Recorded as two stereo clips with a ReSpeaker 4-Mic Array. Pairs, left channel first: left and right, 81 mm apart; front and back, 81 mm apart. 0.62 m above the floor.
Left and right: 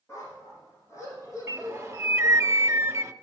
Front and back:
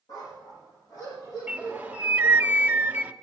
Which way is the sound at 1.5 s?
120° right.